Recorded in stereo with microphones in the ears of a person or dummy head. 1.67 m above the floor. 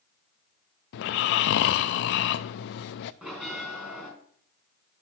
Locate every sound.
0.9 s snoring: 60° left (ahead or behind), 0.6 m
3.2 s a bell: 5° right (ahead or behind), 5 m